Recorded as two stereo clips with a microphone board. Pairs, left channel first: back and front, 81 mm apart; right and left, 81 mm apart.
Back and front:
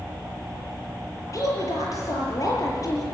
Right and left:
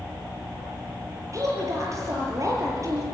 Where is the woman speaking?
135° left, 7 m.